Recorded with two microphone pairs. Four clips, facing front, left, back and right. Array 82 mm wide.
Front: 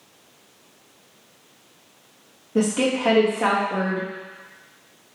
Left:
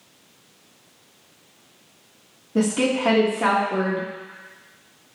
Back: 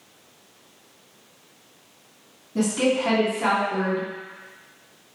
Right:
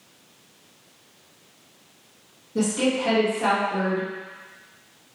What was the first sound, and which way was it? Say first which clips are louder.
A woman speaking: left 2 dB, front 1 dB; 35° left.